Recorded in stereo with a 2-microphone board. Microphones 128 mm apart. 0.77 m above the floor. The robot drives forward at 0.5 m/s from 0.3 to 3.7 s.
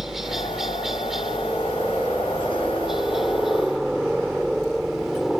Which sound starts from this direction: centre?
A helicopter, at 0.0 s.